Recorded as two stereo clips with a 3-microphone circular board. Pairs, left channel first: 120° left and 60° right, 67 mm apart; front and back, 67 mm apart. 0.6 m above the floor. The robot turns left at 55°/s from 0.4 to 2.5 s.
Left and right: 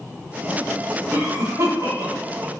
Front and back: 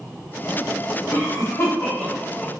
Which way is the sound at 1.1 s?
10° right.